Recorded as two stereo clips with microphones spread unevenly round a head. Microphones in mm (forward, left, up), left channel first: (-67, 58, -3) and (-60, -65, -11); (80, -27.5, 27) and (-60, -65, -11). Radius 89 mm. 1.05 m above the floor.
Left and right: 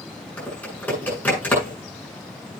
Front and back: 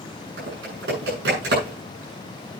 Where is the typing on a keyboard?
170° left, 7.5 m.